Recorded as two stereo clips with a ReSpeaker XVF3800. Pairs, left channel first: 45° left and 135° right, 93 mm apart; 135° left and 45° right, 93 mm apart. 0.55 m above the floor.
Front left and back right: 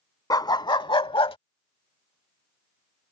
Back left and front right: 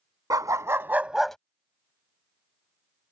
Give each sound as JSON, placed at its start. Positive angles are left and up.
{"t": 0.3, "sound": "a dog barking", "azimuth_deg": 5}